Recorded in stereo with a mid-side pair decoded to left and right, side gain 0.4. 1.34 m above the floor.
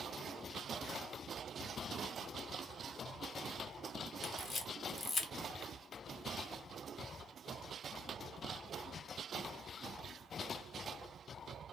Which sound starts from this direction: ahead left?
A camera shutter, at 4.2 s.